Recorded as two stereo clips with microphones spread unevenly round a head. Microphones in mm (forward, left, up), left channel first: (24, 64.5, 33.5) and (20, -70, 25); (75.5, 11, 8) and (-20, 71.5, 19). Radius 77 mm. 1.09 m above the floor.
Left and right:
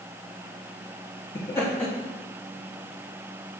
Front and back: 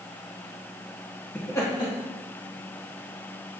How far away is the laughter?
About 0.7 m.